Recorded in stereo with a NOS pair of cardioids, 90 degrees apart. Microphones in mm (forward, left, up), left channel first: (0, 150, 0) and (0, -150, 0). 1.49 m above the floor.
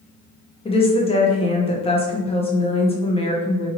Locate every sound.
0.7 s a woman speaking: 20° left, 0.9 m